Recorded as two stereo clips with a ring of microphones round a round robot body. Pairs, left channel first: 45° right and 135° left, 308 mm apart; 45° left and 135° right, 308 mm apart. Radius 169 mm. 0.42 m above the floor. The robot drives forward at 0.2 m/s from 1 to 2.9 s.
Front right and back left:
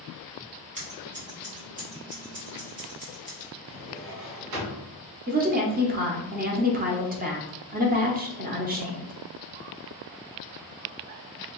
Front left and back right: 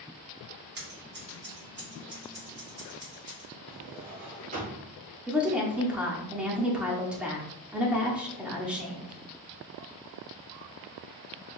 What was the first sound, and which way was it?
Scissors, 170° right.